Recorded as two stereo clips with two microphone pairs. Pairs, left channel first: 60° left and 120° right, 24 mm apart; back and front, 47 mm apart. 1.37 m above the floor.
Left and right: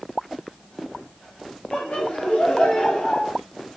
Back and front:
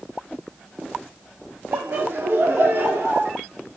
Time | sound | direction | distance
1.7 | laughter | 30° left | 4.5 m